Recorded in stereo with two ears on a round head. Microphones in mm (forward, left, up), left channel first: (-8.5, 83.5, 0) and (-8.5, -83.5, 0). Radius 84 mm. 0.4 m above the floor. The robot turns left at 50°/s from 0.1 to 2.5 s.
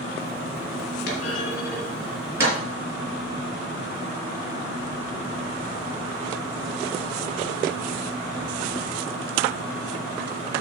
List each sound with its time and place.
1.1 s a clunk: 55° left (ahead or behind), 5.5 m; by 2.6 s 20° right (ahead or behind), 5.5 m